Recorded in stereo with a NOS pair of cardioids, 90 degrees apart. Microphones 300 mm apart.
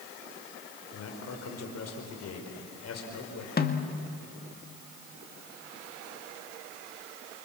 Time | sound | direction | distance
0.9 | a man speaking | 55° left | 5 m
3.6 | a snare drum | 30° left | 1.9 m